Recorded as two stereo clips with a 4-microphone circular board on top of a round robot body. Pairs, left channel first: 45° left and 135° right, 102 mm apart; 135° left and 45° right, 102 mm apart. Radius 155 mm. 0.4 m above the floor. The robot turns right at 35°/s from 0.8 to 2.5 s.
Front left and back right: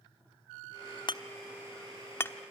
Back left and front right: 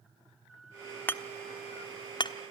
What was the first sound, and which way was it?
Hammering, 70° left.